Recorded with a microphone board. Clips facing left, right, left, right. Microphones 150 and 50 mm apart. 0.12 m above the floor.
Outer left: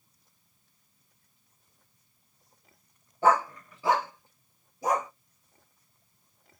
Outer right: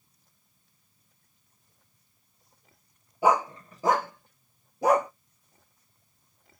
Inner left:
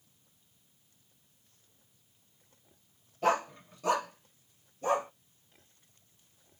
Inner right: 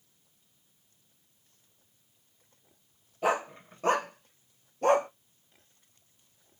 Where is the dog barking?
10° right (ahead or behind), 0.6 m; by 5.1 s 65° right (ahead or behind), 0.8 m.